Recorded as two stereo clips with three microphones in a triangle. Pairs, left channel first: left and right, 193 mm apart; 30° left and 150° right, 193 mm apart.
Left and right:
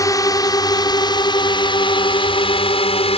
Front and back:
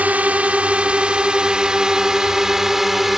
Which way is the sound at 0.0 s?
140° left.